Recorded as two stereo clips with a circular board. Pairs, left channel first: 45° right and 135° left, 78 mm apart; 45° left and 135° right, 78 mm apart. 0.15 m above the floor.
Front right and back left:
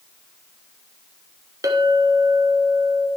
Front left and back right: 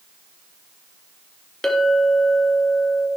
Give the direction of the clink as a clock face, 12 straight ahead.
8 o'clock.